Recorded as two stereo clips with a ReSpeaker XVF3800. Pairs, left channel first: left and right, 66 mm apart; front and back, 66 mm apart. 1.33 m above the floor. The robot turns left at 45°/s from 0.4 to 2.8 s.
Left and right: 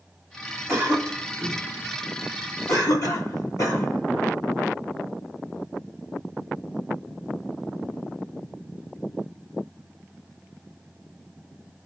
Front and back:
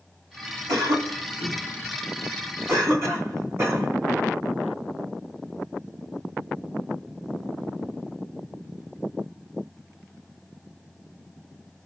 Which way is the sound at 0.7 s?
140° right.